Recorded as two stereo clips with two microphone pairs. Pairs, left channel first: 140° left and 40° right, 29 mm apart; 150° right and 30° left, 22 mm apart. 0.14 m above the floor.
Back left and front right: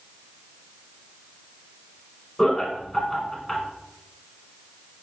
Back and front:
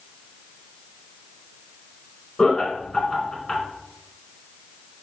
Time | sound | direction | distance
2.4 | laughter | 150° right | 1.3 m